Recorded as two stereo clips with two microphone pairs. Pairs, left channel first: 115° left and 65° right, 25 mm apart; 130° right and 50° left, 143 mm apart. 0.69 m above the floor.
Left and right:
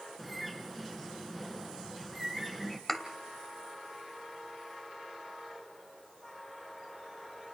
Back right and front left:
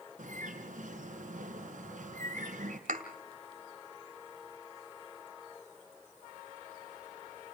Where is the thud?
35° left, 1.9 m.